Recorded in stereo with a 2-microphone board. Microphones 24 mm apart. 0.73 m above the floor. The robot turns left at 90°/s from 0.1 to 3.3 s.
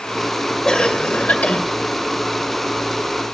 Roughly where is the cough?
Behind left.